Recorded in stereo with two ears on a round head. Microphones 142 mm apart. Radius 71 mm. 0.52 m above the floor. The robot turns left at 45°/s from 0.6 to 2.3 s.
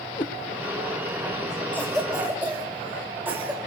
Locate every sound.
0.2 s a cat meowing: 30° left (ahead or behind), 2.0 m
1.7 s a cough: 10° left (ahead or behind), 2 m; by 3.6 s 10° right (ahead or behind), 2 m